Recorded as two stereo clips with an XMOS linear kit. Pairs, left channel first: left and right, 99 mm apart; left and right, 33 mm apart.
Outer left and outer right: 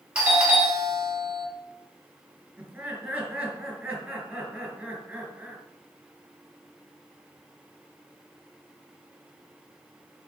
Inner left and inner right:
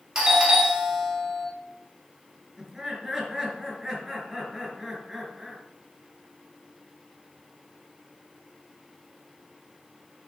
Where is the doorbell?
10° right (ahead or behind), 2 m.